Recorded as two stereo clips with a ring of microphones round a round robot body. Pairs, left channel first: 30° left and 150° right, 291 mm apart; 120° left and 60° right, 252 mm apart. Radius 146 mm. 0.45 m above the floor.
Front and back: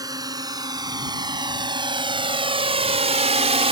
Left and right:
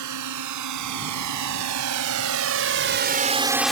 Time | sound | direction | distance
0.0 | a drone | 70° right | ?